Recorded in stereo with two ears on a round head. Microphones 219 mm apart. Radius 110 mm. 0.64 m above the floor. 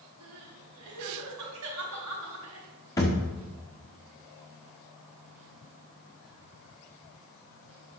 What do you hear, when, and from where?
0.2 s crying: 80° right, 4 m
3.0 s a thud: 15° left (ahead or behind), 3.5 m